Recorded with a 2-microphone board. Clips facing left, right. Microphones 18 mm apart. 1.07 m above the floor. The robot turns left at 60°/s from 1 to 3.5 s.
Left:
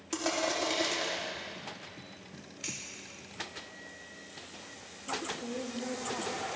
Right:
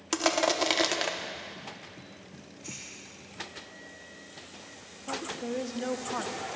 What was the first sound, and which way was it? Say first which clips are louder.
Crushing: right 5 dB; 40° right (ahead or behind).